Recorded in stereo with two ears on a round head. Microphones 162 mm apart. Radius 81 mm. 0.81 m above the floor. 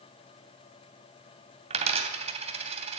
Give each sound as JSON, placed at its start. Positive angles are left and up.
{"t": 1.7, "sound": "a dropped coin", "side_deg": -35, "distance_m": 2.5}